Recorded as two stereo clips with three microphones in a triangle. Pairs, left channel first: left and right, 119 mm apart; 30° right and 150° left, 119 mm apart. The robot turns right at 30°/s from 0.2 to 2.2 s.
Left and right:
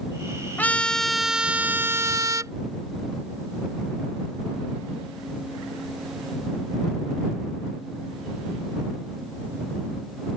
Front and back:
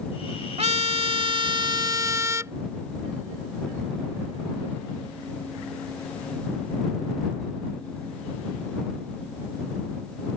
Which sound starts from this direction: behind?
A trumpet, at 0.6 s.